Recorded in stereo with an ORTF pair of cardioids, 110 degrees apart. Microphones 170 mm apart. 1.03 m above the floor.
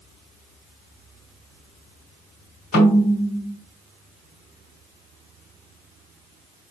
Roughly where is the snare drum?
Ahead left.